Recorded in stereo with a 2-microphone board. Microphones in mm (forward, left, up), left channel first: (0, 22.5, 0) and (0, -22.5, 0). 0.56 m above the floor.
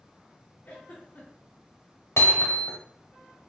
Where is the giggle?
45° left (ahead or behind), 1.4 m.